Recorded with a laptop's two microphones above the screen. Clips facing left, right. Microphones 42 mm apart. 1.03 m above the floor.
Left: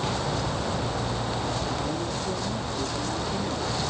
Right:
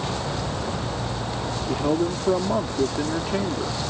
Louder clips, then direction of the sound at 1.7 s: Right 6 dB; 70° right (ahead or behind).